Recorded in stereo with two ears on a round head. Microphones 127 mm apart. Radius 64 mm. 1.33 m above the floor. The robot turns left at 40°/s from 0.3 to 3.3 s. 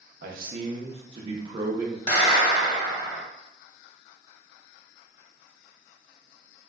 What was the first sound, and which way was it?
A man speaking, 105° right.